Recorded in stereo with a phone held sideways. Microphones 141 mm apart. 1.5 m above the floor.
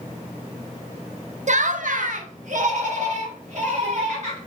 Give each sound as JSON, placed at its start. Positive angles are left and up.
{"t": 1.5, "sound": "laughter", "side_deg": -60, "distance_m": 0.5}